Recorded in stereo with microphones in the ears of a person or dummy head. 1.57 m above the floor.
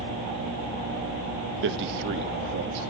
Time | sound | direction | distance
1.6 | a man speaking | 65° right (ahead or behind) | 1.4 m